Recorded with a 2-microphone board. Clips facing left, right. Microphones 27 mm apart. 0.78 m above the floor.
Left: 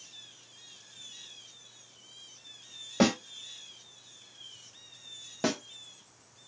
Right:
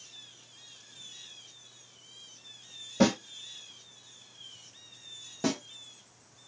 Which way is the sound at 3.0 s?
55° left (ahead or behind).